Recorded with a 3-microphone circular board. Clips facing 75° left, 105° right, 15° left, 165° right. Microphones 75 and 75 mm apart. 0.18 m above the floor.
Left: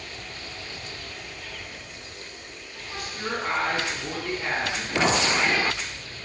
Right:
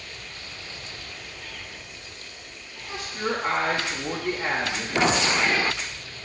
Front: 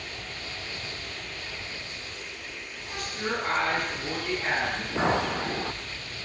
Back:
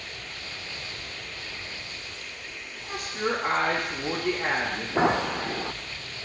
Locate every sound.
2.8 s a woman speaking: 145° right, 2.0 m
5.0 s a clink: 165° left, 2 m